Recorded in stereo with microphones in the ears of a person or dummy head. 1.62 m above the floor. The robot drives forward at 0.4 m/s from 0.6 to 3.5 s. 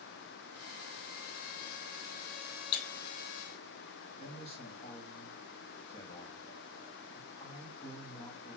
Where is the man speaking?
35° left (ahead or behind), 1.4 m.